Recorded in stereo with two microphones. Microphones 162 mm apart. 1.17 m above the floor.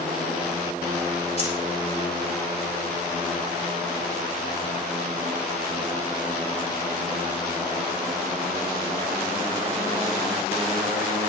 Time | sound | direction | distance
1.4 | keys jangling | 40° left (ahead or behind) | 6.5 m